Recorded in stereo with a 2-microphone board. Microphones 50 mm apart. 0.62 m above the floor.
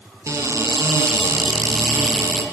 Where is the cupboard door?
90° right, 3 m.